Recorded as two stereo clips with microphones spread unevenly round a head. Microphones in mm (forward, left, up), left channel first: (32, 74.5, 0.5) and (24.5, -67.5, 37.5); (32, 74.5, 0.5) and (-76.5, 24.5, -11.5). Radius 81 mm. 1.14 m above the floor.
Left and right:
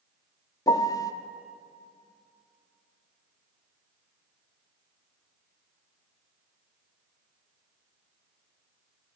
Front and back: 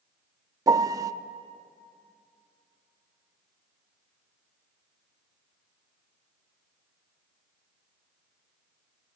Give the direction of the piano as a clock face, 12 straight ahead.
7 o'clock.